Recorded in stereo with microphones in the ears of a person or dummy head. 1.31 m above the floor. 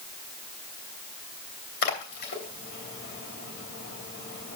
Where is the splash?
65° left (ahead or behind), 2.5 m.